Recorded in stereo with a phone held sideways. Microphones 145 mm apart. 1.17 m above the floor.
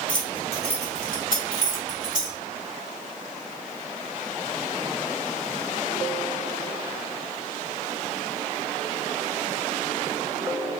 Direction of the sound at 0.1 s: 30° left (ahead or behind).